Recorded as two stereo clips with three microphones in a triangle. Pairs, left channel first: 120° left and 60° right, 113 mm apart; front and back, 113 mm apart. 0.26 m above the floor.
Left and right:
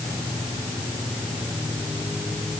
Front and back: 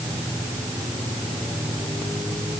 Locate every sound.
Only background noise.